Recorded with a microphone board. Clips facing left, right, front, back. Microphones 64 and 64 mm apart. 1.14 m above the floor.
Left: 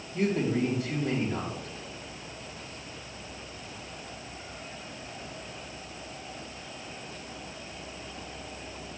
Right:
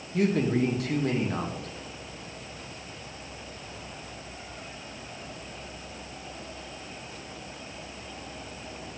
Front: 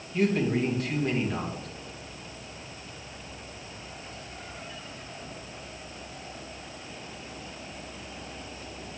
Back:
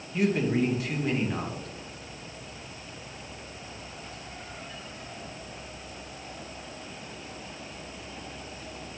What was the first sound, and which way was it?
A man speaking, 95° right.